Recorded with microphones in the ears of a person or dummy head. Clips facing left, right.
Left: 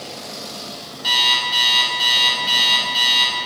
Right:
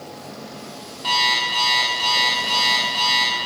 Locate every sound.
1.0 s an alarm clock: 15° left (ahead or behind), 2.0 m